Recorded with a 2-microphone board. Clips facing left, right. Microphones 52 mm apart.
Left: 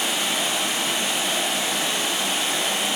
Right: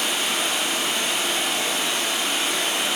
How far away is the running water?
About 2.0 m.